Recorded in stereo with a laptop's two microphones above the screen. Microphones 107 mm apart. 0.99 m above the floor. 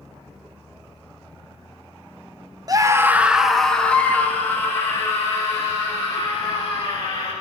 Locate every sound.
2.7 s a scream: 35° right (ahead or behind), 1.0 m; by 7.3 s 30° left (ahead or behind), 4.5 m